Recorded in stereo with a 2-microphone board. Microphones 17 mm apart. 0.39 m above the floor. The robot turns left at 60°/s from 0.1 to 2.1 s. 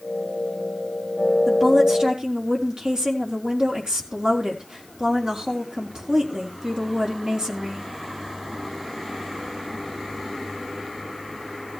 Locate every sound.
1.5 s a woman speaking: 20° right, 4 m; by 7.9 s 55° right, 4 m